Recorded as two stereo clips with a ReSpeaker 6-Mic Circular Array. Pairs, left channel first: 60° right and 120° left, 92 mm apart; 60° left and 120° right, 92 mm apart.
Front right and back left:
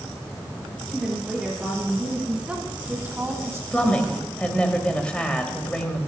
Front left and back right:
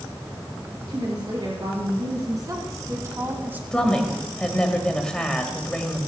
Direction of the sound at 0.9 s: 155° right.